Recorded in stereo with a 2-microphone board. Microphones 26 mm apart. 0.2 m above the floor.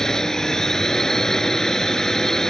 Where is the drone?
15° left (ahead or behind).